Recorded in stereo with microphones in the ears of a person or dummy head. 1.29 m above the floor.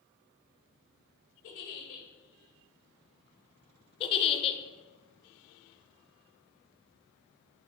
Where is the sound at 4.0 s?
30° left (ahead or behind), 0.9 m.